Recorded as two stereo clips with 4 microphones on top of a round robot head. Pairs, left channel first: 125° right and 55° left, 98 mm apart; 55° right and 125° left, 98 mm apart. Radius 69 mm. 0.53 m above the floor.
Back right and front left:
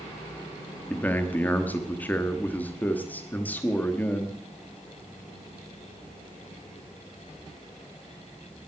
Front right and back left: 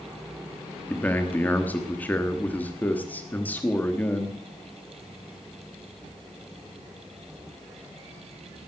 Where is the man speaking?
90° right, 1.1 m.